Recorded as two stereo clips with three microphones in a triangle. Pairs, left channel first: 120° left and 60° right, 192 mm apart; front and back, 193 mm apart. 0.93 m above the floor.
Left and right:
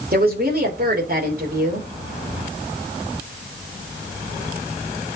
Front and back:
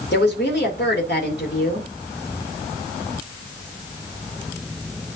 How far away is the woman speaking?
About 3 m.